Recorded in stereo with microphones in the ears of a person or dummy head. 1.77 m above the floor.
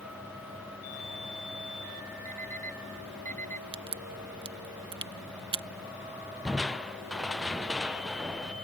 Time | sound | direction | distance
2.2 | an alarm clock | 45° right (ahead or behind) | ?
3.7 | a crack | 25° right (ahead or behind) | ?
6.5 | crushing | 5° right (ahead or behind) | ?